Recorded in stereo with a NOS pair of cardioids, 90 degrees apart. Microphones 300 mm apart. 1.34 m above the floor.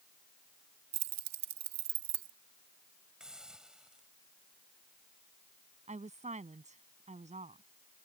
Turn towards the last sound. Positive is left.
turn(degrees=-25)